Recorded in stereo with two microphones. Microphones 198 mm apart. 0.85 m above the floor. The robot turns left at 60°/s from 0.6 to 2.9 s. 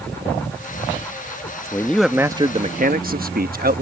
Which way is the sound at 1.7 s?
20° left.